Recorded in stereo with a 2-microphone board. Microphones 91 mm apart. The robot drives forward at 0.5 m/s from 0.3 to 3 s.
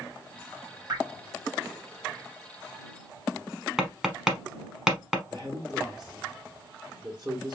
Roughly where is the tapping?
Centre.